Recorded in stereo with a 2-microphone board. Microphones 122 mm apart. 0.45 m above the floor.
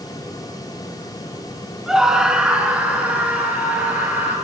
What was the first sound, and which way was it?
A scream, 5° right (ahead or behind).